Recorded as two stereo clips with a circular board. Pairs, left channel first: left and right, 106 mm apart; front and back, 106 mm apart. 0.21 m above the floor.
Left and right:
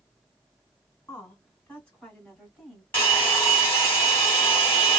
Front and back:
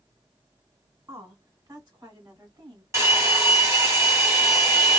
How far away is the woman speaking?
About 1.8 m.